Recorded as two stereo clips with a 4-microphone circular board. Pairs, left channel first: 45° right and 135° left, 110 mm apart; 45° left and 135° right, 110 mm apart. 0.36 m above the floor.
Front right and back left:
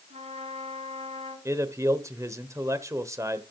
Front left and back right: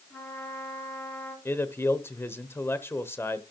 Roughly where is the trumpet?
Behind left.